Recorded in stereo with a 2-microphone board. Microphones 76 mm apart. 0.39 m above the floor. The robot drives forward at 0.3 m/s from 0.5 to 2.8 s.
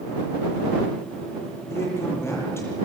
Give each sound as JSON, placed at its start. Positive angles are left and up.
{"t": 1.7, "sound": "a man speaking", "side_deg": 35, "distance_m": 9.0}